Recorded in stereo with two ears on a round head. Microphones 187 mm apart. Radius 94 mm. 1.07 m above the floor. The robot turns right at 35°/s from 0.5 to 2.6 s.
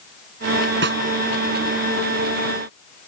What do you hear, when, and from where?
0.8 s a snare drum: 55° right (ahead or behind); by 1.0 s 50° right (ahead or behind)